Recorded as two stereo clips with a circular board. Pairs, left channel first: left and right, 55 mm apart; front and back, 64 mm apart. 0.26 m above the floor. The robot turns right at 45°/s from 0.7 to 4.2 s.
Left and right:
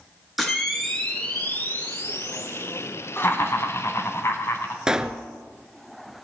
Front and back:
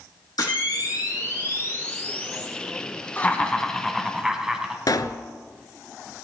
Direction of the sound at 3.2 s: 55° left.